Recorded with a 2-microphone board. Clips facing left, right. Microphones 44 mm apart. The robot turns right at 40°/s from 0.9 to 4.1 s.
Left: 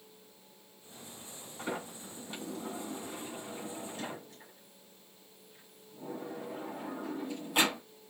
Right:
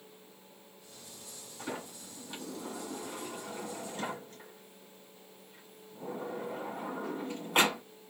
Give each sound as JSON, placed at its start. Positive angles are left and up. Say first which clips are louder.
{"t": 1.6, "sound": "a sliding door", "louder": "left 2 dB", "side_deg": 35, "distance_m": 2.5}